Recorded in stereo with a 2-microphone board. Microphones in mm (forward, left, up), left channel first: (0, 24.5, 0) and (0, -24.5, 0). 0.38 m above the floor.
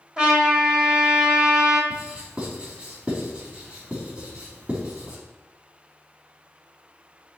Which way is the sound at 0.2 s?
20° right (ahead or behind).